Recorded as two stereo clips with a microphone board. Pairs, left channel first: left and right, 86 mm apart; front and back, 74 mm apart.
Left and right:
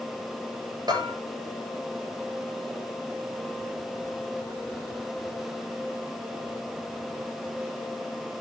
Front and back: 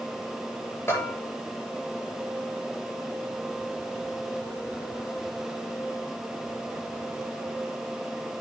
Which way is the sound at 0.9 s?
55° right.